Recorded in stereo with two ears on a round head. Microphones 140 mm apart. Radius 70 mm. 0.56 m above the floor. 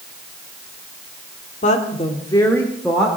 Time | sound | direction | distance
1.6 | a woman speaking | 50° left (ahead or behind) | 1.8 m